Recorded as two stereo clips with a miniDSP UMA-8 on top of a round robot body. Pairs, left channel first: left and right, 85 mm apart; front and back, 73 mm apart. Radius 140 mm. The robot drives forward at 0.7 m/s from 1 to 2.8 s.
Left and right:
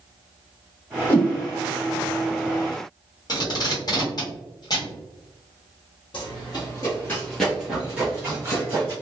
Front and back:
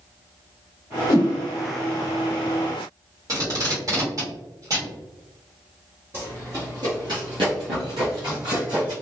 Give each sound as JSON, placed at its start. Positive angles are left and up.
{"t": 1.1, "sound": "a whoosh", "azimuth_deg": 25, "distance_m": 1.7}
{"t": 3.3, "sound": "tape being pulled", "azimuth_deg": 135, "distance_m": 1.1}
{"t": 6.1, "sound": "running footsteps", "azimuth_deg": 120, "distance_m": 1.2}